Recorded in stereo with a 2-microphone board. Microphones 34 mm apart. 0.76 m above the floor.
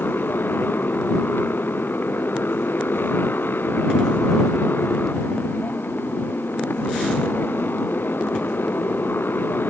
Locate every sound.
0.0 s a motorcycle: 80° left